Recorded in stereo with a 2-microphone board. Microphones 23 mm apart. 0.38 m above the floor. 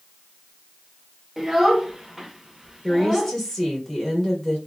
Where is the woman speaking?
15° left (ahead or behind), 1.1 m.